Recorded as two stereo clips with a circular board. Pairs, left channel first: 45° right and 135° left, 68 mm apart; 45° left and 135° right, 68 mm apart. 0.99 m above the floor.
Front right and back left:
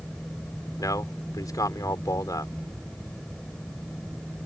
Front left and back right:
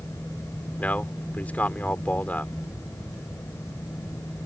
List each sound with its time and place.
0.8 s a man speaking: 20° right